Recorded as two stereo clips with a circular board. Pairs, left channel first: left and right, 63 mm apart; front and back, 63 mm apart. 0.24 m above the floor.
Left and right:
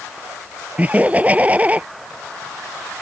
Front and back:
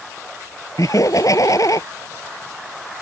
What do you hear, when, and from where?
0.8 s laughter: 25° right